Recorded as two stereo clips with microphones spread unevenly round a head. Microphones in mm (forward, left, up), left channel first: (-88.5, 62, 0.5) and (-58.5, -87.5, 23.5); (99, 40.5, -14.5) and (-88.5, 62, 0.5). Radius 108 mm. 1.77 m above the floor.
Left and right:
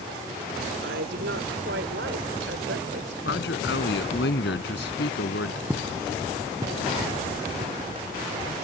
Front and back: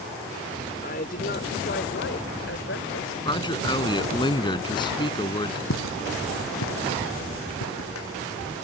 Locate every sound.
0.8 s a woman speaking: 65° right; by 3.1 s 45° right
3.2 s a man speaking: 60° left
5.7 s footsteps: straight ahead; by 8.5 s 20° right